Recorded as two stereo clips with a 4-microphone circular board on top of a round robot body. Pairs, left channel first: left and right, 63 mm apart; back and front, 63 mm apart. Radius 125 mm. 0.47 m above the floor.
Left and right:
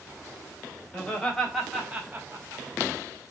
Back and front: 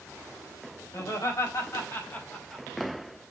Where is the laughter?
165° left, 2 m; by 2.7 s 100° right, 1.4 m.